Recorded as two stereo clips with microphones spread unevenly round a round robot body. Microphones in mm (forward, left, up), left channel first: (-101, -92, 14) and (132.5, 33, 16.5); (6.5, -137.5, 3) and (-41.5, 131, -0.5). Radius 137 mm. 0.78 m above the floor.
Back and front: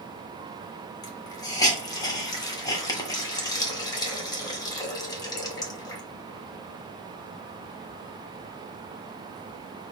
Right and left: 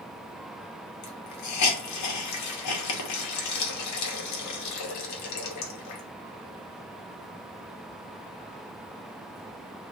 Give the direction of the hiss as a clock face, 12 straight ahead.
3 o'clock.